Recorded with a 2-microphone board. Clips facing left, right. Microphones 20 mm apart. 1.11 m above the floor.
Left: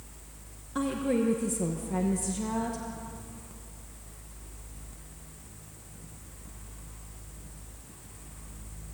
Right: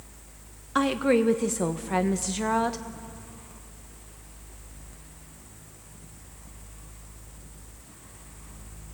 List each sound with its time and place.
0.8 s a woman speaking: 55° right (ahead or behind), 0.8 m